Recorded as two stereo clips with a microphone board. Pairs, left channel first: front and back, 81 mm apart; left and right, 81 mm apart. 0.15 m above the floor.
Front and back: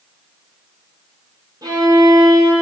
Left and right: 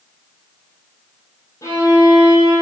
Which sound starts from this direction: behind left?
A violin, at 1.6 s.